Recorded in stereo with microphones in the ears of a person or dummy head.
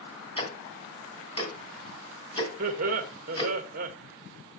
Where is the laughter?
45° right (ahead or behind), 1.4 m.